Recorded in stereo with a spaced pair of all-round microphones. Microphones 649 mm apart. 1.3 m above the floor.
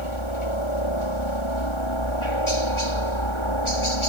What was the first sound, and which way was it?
A helicopter, 45° left (ahead or behind).